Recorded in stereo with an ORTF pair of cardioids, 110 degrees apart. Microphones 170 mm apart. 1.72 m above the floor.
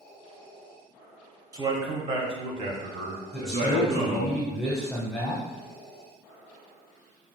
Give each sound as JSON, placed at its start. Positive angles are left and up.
{"t": 1.5, "sound": "a man speaking", "azimuth_deg": -25, "distance_m": 1.1}
{"t": 3.3, "sound": "a man speaking", "azimuth_deg": 5, "distance_m": 1.0}